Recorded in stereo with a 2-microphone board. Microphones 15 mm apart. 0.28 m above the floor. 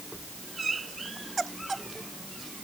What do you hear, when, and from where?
Only background noise.